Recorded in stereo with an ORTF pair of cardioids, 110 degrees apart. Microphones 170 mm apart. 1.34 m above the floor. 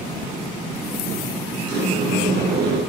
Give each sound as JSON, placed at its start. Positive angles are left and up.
{"t": 1.7, "sound": "a sliding door", "azimuth_deg": -70, "distance_m": 9.0}